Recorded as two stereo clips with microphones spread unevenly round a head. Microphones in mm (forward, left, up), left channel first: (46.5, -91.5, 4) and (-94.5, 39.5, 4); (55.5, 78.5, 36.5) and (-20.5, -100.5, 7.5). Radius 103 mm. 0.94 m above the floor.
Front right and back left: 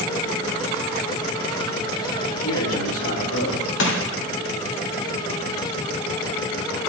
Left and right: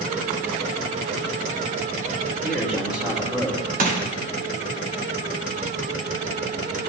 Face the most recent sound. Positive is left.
turn(degrees=-65)